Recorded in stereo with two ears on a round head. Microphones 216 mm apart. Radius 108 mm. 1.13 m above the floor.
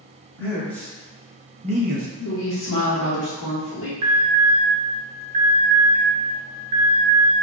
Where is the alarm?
25° right (ahead or behind), 0.8 m.